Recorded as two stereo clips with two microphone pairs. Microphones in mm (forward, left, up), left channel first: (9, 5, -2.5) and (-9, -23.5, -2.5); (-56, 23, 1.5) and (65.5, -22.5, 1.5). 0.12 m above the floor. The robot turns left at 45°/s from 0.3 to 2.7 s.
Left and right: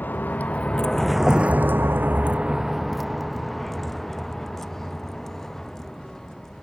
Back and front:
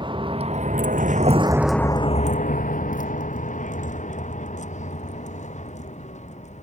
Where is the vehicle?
30° left; by 6.6 s 130° left.